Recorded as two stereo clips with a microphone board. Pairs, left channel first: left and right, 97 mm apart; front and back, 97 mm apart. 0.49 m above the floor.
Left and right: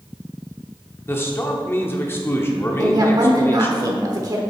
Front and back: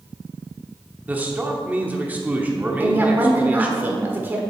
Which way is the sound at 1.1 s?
125° left.